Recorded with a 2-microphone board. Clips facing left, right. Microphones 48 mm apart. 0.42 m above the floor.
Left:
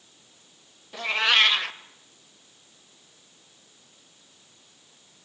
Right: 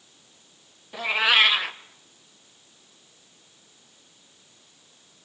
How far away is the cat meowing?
About 0.9 m.